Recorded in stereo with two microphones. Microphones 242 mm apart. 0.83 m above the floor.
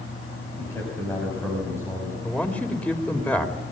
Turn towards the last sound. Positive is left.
turn(degrees=5)  # may be behind; listen again after turning